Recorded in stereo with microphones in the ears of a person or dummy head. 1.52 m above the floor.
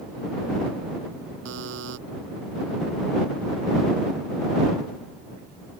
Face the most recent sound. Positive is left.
turn(degrees=-70)  # may be behind; listen again after turning